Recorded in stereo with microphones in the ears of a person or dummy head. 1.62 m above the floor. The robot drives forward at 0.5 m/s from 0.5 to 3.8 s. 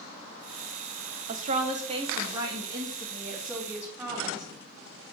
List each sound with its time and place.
1.3 s a woman speaking: 40° right (ahead or behind), 0.6 m; by 4.5 s 15° right (ahead or behind), 1.7 m